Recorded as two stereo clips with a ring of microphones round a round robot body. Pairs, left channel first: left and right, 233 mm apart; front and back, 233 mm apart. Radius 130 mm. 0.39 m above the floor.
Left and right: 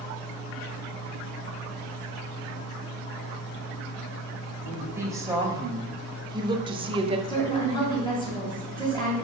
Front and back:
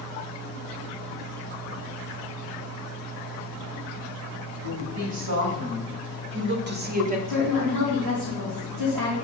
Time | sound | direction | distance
4.6 | a woman speaking | 170° right | 2 m
7.3 | a woman speaking | 165° left | 3 m